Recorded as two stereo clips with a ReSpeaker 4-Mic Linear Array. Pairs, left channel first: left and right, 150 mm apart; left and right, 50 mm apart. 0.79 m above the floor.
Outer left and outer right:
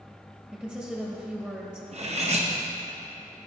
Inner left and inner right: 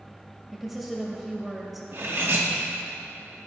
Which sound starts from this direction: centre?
A woman speaking, at 0.5 s.